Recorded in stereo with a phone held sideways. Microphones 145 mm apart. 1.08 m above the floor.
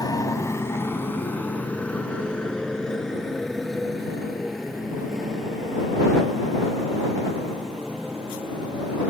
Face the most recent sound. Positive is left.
turn(degrees=-5)  # may be behind; listen again after turning